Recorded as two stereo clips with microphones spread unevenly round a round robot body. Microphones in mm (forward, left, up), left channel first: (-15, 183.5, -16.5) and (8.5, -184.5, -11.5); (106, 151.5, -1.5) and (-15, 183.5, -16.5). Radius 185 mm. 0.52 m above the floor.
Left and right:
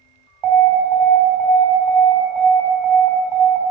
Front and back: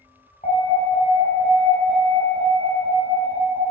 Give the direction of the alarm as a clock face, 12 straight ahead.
3 o'clock.